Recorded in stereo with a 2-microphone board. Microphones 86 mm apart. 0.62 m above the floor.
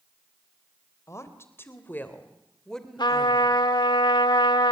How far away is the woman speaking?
About 3.5 m.